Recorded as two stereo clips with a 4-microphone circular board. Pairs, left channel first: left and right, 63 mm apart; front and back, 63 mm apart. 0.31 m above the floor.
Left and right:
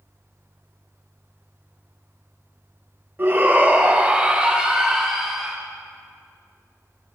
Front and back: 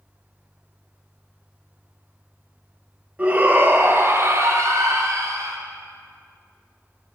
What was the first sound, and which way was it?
A shout, 125° right.